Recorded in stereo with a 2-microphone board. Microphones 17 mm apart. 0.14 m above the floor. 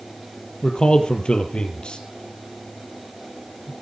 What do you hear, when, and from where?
0.6 s a man speaking: 70° left (ahead or behind), 3.5 m